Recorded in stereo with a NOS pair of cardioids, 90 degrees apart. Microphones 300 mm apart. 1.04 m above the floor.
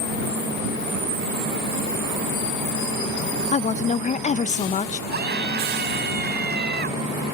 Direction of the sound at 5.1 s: 35° right.